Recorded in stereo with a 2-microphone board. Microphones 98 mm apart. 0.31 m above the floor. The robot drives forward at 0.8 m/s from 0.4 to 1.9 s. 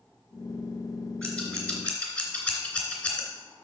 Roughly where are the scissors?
Centre.